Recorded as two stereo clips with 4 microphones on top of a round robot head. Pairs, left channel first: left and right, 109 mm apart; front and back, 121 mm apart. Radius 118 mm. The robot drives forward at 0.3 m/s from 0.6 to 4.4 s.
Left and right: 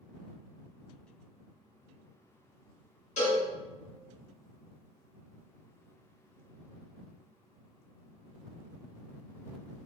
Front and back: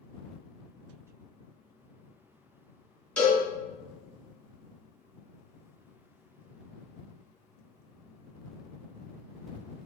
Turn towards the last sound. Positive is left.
turn(degrees=90)